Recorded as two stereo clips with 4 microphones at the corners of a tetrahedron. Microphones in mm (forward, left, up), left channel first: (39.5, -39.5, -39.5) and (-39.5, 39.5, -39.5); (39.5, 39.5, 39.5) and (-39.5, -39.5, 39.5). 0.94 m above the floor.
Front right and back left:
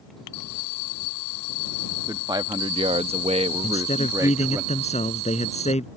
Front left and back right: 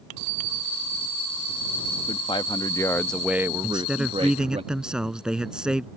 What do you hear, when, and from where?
2.1 s a man speaking: 80° left; by 4.6 s 155° right
3.6 s a man speaking: 50° right